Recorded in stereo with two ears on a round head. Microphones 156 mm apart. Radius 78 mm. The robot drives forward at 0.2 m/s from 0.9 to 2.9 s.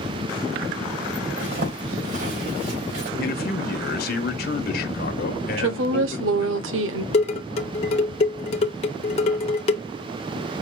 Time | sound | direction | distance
1.4 | a zipper | 70° right (ahead or behind) | 3 m
3.2 | a man speaking | 55° left (ahead or behind) | 0.9 m
5.6 | a woman speaking | 80° right | 0.9 m
7.1 | dishes clattering | 35° left (ahead or behind) | 0.8 m